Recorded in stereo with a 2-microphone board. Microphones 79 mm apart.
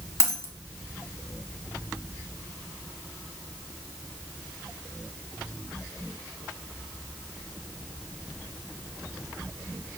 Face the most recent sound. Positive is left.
turn(degrees=40)  # may be behind; listen again after turning